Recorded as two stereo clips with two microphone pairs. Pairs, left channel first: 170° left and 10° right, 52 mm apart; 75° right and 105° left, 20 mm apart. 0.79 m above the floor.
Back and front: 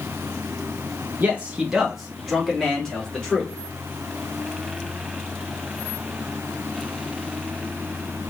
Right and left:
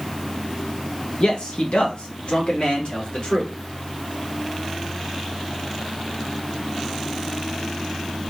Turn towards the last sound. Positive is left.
turn(degrees=-115)